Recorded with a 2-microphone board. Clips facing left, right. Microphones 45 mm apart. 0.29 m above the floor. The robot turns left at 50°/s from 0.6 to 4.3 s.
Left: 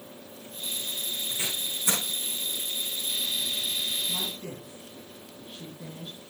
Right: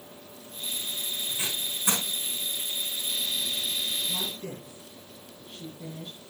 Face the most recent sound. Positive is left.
turn(degrees=5)  # may be behind; listen again after turning